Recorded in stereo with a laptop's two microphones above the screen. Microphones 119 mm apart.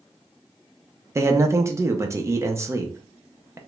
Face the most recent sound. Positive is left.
turn(degrees=-25)  # may be behind; listen again after turning